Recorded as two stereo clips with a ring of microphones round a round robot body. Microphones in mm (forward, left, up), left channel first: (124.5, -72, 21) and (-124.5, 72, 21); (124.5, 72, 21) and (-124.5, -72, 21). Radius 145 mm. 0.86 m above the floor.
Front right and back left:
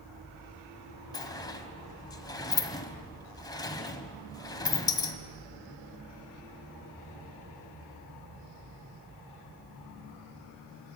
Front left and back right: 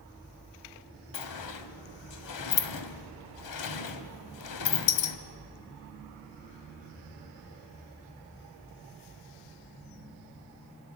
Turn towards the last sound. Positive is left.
turn(degrees=45)